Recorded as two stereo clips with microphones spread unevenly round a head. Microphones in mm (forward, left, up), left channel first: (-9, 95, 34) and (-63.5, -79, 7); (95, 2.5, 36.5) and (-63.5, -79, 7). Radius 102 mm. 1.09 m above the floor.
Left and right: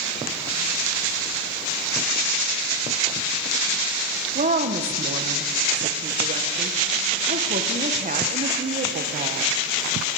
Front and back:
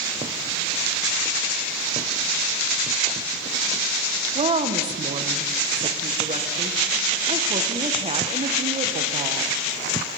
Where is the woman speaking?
120° right, 0.5 m.